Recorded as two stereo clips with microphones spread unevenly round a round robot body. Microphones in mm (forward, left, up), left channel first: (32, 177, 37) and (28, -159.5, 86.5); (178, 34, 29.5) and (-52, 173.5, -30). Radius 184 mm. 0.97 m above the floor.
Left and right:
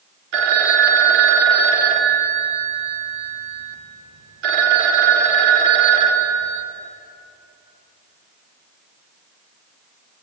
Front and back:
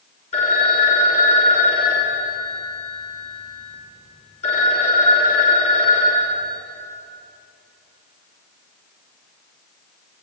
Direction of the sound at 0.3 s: 105° right.